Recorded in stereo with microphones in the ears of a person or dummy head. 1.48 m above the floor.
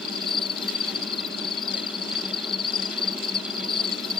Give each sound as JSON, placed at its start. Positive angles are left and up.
{"t": 0.0, "sound": "an insect", "side_deg": 5}